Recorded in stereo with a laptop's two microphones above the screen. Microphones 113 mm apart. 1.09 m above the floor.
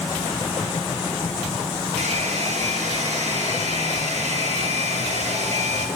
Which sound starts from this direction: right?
A hair dryer, at 2.0 s.